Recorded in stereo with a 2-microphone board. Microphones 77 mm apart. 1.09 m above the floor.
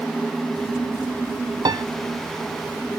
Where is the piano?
65° right (ahead or behind).